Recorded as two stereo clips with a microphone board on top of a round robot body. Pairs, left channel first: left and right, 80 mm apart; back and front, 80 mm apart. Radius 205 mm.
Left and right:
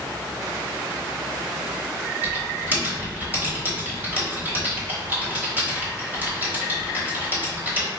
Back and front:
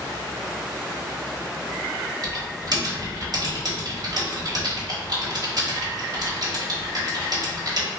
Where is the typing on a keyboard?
25° right, 1.3 m.